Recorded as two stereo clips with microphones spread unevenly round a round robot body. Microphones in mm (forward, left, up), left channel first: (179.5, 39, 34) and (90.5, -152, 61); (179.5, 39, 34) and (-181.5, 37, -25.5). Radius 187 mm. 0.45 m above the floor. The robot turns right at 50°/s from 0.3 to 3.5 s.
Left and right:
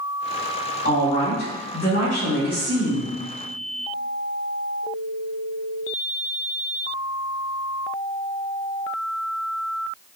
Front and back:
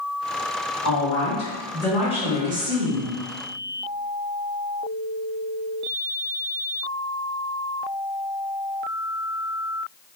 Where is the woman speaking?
40° left, 1.7 m; by 3.1 s 155° left, 1.7 m.